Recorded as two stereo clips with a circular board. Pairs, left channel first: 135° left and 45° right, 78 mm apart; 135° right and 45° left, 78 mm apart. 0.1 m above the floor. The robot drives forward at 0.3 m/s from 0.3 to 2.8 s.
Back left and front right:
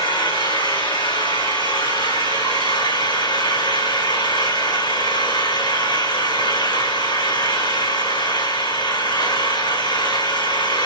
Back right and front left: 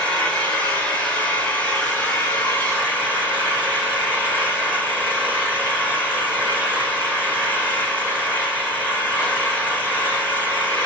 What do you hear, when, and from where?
0.0 s an engine running: 150° left, 5.5 m; by 10.9 s 155° left, 6 m